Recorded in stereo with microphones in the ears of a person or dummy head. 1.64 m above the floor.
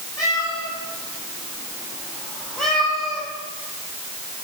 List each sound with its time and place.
0.2 s a cat meowing: 20° left (ahead or behind), 5.5 m; by 3.3 s 5° right (ahead or behind), 4 m